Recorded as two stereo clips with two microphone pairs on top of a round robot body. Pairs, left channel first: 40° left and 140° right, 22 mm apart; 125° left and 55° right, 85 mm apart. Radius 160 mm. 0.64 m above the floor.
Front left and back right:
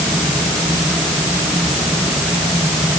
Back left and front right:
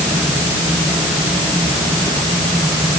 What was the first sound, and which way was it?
Only background noise.